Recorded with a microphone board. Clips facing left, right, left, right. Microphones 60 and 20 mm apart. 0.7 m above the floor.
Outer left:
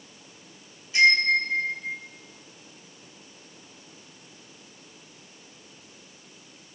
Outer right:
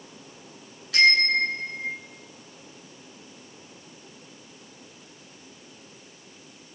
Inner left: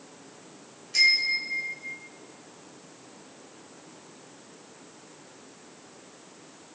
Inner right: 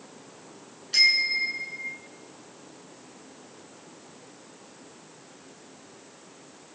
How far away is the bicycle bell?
About 6.5 m.